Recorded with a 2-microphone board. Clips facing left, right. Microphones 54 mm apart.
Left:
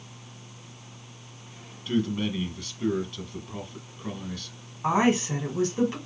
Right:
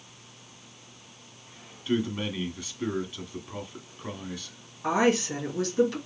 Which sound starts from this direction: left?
A woman speaking, at 4.8 s.